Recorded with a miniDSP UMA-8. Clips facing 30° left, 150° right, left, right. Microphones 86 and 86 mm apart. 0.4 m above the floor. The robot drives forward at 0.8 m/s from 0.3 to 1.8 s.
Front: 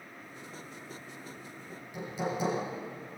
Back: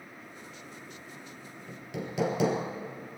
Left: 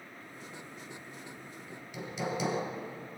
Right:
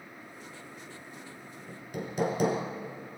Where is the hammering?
130° right, 3 m; by 2.6 s 135° right, 3 m.